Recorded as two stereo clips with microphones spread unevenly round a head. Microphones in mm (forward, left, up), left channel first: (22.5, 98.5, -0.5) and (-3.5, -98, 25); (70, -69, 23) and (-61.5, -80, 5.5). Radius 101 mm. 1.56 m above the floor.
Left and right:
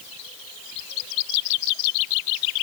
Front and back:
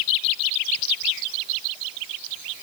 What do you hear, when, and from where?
Only background noise.